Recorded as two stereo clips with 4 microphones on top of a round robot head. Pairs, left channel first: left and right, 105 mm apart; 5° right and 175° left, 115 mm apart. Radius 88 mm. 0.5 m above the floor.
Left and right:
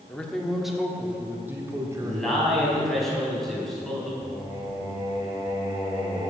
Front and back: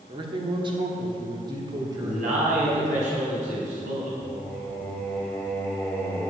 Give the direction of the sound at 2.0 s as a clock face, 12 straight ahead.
6 o'clock.